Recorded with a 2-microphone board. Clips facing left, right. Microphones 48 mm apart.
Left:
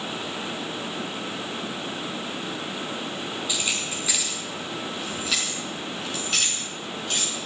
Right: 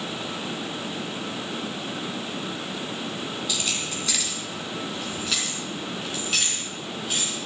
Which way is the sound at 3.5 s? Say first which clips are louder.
Left 1 dB; 15° left (ahead or behind).